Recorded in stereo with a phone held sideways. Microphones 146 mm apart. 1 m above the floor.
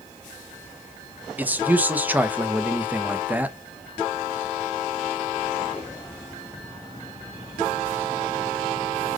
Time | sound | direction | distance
1.4 | a man speaking | 10° right (ahead or behind) | 0.6 m